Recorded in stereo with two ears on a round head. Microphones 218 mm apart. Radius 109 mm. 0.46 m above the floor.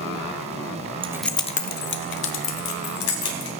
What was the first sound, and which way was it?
Keys jangling, 20° right (ahead or behind).